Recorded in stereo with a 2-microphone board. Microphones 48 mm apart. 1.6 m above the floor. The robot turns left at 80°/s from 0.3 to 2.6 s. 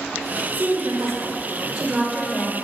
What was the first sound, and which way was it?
A woman speaking, 35° right.